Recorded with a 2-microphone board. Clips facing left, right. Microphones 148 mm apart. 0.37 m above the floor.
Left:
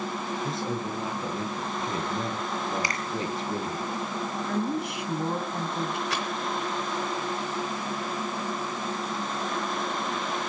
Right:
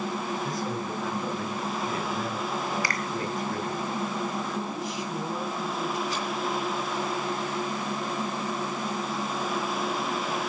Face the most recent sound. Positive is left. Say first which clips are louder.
# even
turn(degrees=75)  # may be behind; listen again after turning